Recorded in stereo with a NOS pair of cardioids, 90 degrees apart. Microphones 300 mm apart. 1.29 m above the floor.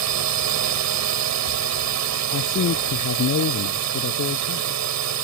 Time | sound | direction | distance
0.0 | a drone | 65° right | ?
2.3 | a man speaking | 55° left | ?